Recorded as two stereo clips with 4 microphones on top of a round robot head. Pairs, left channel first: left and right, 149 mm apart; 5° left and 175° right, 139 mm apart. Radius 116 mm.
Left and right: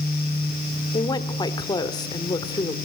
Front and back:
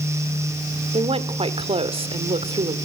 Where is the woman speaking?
150° left, 1.9 m.